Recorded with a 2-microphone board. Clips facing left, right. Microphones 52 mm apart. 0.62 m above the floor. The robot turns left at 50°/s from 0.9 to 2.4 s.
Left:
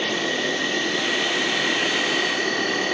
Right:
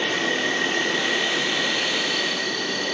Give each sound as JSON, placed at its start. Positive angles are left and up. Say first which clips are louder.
{"t": 0.0, "sound": "an insect", "louder": "right 1 dB", "azimuth_deg": -160, "distance_m": 1.0}